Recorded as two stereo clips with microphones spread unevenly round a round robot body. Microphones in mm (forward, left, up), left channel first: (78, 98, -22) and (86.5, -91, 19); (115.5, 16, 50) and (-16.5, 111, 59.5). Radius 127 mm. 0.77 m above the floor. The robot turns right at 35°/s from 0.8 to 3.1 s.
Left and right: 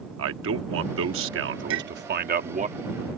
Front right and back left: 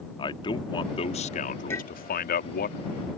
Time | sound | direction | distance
0.2 | a man speaking | 95° right | ?
1.7 | a clink | 115° right | ?